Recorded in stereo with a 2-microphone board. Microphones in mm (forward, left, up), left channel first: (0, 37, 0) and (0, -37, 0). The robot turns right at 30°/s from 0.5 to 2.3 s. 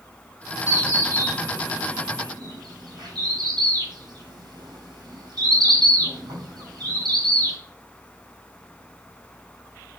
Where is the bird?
25° right (ahead or behind), 4 m; by 7.6 s 70° right (ahead or behind), 4 m.